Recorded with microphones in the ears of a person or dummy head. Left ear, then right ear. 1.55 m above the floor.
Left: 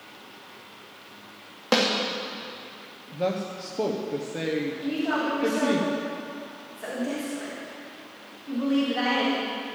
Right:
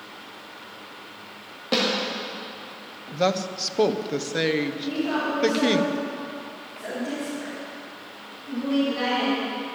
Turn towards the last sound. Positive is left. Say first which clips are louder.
# right 1 dB
turn(degrees=35)  # may be behind; listen again after turning